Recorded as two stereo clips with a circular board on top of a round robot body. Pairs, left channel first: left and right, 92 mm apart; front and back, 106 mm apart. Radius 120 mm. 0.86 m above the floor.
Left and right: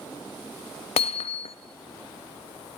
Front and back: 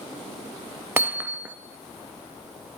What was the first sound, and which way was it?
Hammering, 105° left.